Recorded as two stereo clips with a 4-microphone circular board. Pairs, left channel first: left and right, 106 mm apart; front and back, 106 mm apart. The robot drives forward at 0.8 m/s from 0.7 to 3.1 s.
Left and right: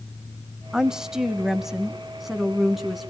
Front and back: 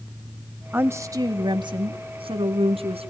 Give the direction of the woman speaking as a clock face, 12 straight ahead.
5 o'clock.